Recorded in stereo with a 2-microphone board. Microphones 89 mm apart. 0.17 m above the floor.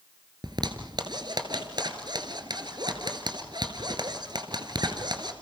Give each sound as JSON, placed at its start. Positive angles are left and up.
{"t": 0.4, "sound": "a zipper", "side_deg": -55, "distance_m": 2.0}